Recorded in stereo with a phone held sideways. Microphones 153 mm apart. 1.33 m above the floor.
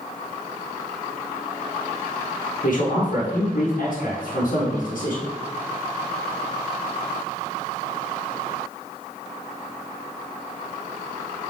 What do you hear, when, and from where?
2.6 s a man speaking: 70° left (ahead or behind), 1.1 m